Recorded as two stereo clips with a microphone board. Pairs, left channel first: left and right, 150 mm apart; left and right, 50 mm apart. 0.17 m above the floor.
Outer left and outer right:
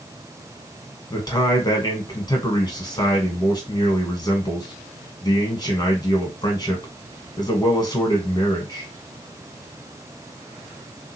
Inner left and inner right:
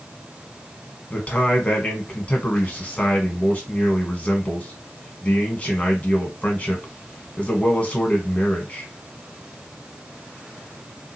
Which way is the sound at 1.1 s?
30° left (ahead or behind).